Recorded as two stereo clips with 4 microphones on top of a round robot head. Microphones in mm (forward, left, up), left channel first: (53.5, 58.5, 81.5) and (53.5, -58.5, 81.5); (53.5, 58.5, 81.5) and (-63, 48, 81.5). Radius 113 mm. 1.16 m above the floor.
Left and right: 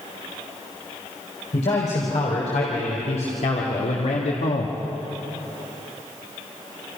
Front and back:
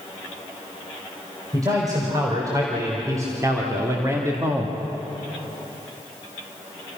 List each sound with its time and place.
1.5 s a man speaking: 130° left, 5 m; by 4.8 s 115° left, 1.8 m